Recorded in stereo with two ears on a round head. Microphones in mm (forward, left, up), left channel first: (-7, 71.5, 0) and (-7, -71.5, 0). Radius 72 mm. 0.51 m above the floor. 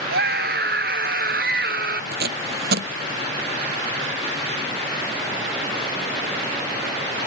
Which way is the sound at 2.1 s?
65° right (ahead or behind).